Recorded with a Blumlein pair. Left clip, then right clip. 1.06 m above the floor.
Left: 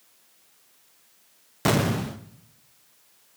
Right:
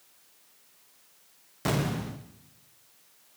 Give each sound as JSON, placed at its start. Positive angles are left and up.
{"t": 1.6, "sound": "an explosion", "azimuth_deg": 20, "distance_m": 0.6}